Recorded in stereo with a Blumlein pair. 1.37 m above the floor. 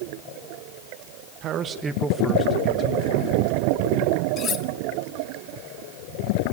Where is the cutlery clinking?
25° left, 1.3 m.